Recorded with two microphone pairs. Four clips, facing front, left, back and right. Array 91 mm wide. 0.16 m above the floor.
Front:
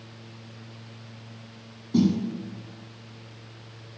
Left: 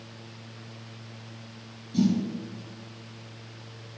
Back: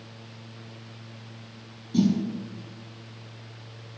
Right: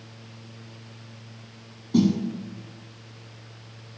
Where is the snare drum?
65° right, 5.5 m.